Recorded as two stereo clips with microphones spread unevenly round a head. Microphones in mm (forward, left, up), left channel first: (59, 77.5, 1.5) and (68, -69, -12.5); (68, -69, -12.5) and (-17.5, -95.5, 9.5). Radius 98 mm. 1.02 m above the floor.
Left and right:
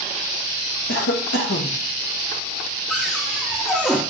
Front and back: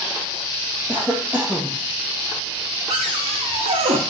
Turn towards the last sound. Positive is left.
turn(degrees=180)